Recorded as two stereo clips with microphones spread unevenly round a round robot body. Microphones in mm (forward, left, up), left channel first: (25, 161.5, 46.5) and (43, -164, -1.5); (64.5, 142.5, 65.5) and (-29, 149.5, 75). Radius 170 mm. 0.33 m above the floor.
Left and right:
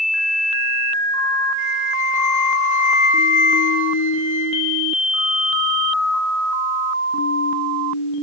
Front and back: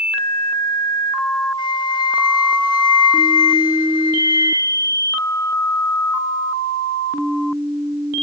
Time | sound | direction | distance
1.6 | a flute | 25° left | 3 m